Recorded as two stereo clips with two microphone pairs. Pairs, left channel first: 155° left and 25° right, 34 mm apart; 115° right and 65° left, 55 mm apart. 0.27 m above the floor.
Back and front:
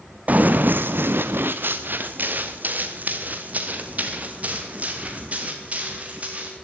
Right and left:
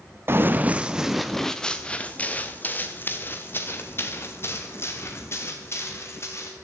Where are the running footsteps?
20° left, 0.8 m; by 6.5 s 75° right, 4 m.